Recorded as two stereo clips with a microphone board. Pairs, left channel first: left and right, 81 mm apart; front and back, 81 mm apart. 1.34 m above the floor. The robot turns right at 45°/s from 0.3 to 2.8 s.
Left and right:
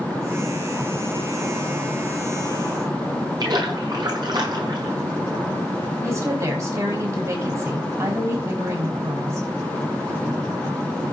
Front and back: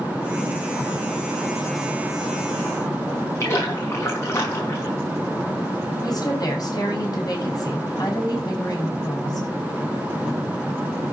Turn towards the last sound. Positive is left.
turn(degrees=-40)